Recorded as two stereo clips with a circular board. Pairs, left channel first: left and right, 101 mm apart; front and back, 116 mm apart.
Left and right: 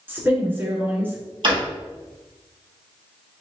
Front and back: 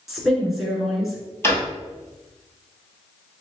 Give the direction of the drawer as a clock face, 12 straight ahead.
2 o'clock.